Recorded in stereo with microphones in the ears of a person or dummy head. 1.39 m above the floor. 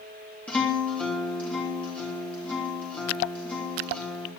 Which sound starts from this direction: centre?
A guitar, at 0.5 s.